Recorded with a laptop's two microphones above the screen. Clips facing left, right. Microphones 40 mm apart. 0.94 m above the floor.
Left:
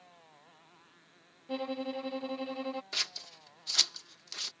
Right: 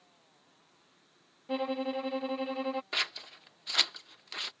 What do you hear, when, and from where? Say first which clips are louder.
0.0 s a motorcycle: left 6 dB; 35° left (ahead or behind)
1.5 s a violin: right 3 dB; 20° right (ahead or behind)
2.9 s scissors: right 4 dB; 30° right (ahead or behind)